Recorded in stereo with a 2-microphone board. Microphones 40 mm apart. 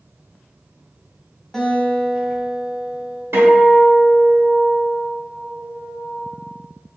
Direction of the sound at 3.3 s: 85° right.